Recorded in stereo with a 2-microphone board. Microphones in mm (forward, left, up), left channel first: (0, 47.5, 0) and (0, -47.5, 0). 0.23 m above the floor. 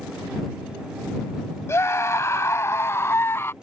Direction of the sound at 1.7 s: 30° left (ahead or behind).